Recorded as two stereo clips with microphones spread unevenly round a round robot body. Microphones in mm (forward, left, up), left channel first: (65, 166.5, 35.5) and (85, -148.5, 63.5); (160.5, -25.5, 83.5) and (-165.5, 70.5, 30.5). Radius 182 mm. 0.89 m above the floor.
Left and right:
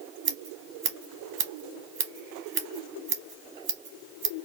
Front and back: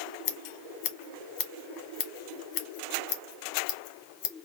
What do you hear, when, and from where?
0.2 s scissors: 35° right, 1.1 m